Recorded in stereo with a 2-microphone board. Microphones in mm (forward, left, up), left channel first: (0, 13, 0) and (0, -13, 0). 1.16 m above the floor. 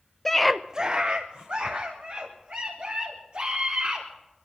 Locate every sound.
0.2 s a scream: 10° left (ahead or behind), 0.8 m; by 4.1 s 45° right (ahead or behind), 5 m